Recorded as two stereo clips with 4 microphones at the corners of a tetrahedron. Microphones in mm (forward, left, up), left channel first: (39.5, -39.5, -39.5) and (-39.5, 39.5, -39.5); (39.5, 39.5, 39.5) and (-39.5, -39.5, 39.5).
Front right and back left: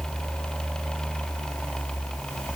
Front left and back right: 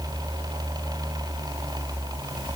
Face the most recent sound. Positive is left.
No sound to turn to.